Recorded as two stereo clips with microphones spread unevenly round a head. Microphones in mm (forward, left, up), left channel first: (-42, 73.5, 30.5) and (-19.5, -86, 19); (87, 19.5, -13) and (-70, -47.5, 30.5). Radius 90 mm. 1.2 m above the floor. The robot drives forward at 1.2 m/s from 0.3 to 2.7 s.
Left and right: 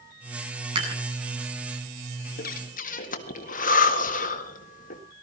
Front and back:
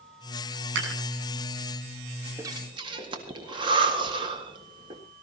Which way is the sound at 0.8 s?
140° right.